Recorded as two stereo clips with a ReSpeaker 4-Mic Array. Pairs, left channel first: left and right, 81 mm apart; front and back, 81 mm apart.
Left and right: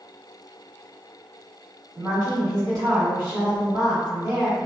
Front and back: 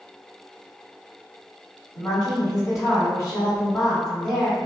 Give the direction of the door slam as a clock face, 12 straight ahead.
No door slam in this recording.